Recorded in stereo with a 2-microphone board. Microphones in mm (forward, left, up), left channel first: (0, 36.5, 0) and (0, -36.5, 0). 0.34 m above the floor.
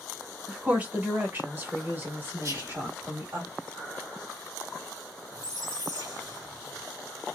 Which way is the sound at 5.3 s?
55° right (ahead or behind).